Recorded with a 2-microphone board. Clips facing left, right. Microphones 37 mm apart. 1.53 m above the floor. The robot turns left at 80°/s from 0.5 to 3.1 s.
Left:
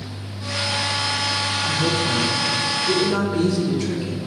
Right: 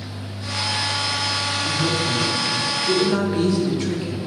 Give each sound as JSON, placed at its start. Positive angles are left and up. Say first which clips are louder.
{"t": 1.6, "sound": "a woman speaking", "louder": "left 1 dB", "azimuth_deg": 90, "distance_m": 1.5}